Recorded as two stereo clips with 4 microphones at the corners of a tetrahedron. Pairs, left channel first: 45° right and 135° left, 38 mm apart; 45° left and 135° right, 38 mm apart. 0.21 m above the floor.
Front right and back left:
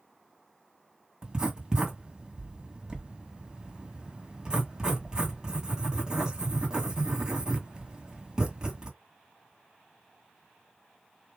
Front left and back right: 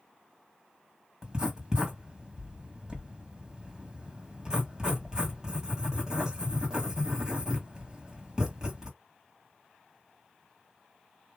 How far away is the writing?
About 1.7 m.